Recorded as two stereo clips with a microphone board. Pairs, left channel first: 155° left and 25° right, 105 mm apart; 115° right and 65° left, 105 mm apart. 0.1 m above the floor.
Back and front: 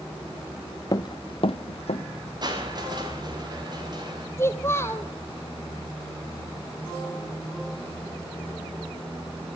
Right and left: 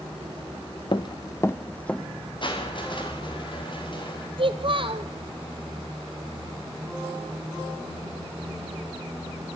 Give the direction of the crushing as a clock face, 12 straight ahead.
2 o'clock.